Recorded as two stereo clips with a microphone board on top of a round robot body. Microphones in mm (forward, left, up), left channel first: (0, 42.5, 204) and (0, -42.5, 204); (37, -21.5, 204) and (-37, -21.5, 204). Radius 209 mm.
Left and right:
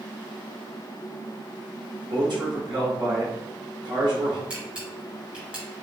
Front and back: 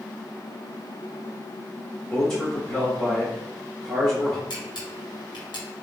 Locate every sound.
2.1 s a man speaking: 70° right, 1.9 m
4.5 s a camera shutter: 10° right, 2 m